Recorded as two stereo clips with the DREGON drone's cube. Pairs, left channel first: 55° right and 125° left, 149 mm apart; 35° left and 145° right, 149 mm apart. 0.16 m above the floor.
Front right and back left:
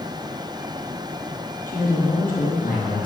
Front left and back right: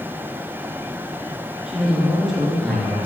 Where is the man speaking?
60° right, 3.5 m; by 3.1 s 45° right, 4 m.